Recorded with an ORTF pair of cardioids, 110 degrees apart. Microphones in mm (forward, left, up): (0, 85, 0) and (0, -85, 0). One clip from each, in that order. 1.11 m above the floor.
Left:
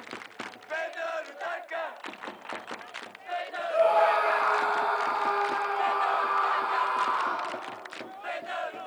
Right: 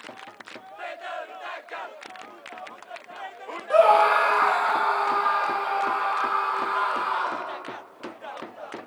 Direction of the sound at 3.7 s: 60° right.